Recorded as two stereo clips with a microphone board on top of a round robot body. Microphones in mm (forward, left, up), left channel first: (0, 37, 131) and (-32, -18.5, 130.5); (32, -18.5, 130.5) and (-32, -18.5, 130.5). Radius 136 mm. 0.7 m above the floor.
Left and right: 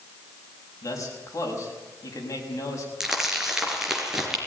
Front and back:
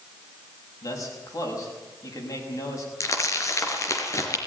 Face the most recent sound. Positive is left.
turn(degrees=-35)